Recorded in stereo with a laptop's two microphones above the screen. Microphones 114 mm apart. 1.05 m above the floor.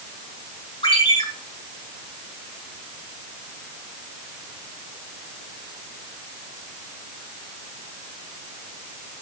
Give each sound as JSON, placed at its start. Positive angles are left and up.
{"t": 0.8, "sound": "a ringtone", "side_deg": 50, "distance_m": 5.0}